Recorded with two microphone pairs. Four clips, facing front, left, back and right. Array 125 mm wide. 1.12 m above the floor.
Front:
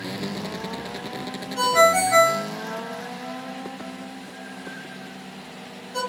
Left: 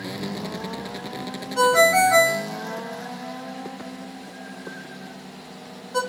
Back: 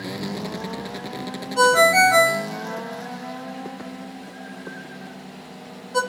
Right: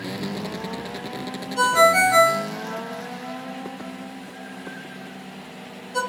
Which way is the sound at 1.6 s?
110° left.